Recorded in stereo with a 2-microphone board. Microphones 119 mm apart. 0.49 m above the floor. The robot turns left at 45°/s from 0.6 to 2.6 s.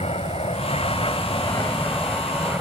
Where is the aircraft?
60° left (ahead or behind); by 2.6 s 15° right (ahead or behind).